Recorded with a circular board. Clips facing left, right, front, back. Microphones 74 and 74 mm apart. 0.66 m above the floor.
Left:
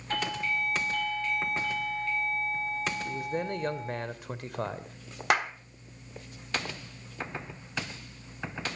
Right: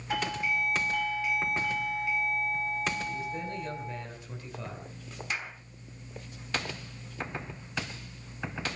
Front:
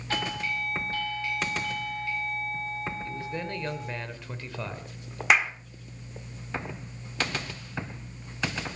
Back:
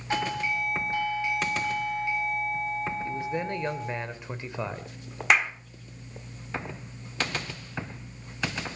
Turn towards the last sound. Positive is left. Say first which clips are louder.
# left 11 dB, even
turn(degrees=90)